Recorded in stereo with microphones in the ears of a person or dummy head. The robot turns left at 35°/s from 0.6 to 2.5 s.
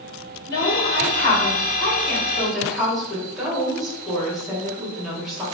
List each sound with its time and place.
0.5 s a woman speaking: 65° left, 1.8 m; by 5.4 s straight ahead, 1.8 m